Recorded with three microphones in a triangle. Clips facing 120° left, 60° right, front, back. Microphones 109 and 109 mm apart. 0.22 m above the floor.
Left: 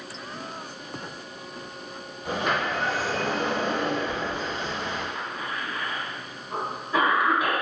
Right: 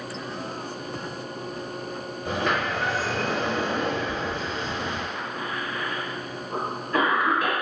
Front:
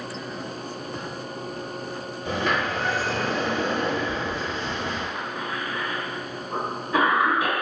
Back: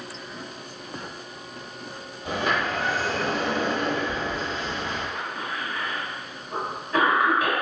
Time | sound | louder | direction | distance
2.2 | a sliding door | even, even | 175° left | 1.6 m
5.2 | a cough | right 2 dB, front 1 dB | 55° left | 1.8 m